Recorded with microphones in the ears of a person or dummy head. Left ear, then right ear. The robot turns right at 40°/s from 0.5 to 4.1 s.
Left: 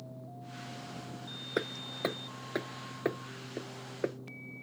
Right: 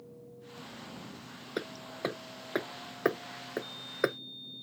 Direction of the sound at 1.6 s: 25° left (ahead or behind).